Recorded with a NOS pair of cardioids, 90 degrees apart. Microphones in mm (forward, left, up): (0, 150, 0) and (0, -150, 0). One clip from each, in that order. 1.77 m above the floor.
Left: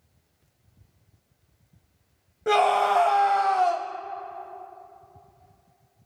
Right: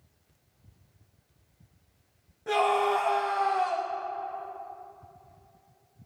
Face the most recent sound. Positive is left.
turn(degrees=50)